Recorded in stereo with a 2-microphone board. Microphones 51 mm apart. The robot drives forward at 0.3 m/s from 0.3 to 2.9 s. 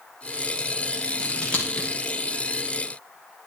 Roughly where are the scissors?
Centre.